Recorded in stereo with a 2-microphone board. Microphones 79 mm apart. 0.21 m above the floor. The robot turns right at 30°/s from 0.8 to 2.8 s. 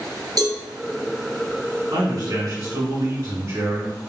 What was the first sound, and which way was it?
A cowbell, 55° right (ahead or behind).